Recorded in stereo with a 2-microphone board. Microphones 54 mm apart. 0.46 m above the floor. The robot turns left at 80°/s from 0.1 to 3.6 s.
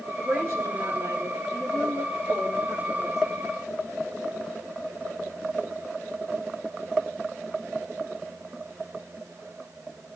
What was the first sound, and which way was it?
A woman speaking, 20° right.